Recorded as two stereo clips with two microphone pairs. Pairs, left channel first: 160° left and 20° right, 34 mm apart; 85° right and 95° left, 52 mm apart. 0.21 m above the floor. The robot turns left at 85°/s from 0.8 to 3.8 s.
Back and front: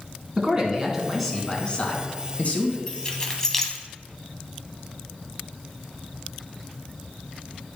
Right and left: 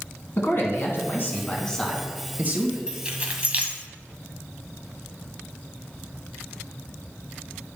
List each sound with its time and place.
0.4 s a man speaking: 80° right, 2 m; by 2.8 s 115° left, 2 m
2.9 s keys jangling: 160° left, 1.1 m; by 3.8 s 85° left, 1.1 m